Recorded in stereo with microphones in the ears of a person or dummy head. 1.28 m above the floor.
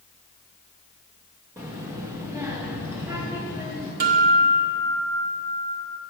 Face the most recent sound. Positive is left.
turn(degrees=-45)  # may be behind; listen again after turning